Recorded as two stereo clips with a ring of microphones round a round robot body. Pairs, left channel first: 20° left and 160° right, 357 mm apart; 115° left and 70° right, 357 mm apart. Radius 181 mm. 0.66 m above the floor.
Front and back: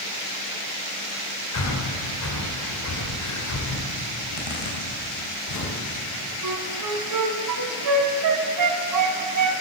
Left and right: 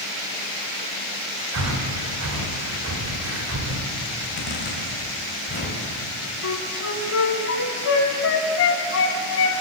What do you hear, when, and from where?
1.5 s breathing: 20° right, 3 m
4.2 s a zipper: 50° left, 4.5 m
6.4 s a flute: 165° left, 2.5 m